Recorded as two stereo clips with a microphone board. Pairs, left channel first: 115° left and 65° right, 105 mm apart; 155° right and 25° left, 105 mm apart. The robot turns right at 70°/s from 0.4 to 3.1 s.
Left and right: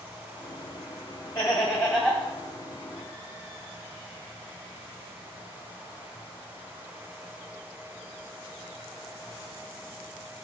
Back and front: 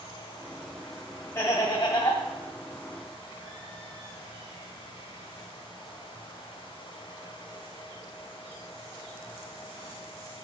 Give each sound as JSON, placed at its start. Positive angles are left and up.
{"t": 1.4, "sound": "laughter", "azimuth_deg": 175, "distance_m": 1.6}